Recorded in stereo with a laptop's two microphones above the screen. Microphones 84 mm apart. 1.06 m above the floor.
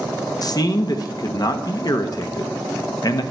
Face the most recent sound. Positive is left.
turn(degrees=50)  # may be behind; listen again after turning